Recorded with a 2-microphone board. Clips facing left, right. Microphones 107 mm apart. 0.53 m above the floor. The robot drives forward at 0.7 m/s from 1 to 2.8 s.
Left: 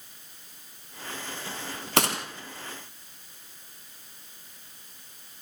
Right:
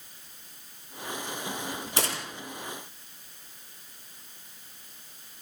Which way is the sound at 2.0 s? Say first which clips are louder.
Left 7 dB; 70° left (ahead or behind).